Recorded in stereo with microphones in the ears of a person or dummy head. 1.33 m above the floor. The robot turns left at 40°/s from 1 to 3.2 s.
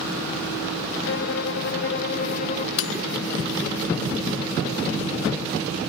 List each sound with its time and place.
1.1 s a violin: 100° left; by 2.7 s 35° left
2.8 s cutlery clinking: 65° left (ahead or behind); by 3.0 s 60° left (ahead or behind)